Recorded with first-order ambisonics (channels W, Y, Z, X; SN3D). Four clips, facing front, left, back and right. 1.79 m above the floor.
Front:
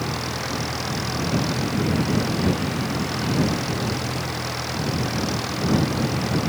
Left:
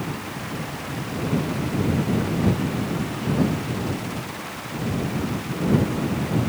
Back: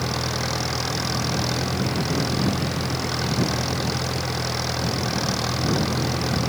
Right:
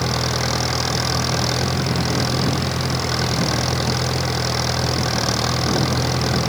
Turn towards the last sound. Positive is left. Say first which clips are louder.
# right 9 dB, back 1 dB
turn(degrees=-105)